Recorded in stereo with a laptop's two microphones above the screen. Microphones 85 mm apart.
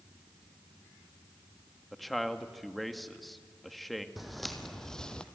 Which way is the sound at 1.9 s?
Centre (ahead or behind).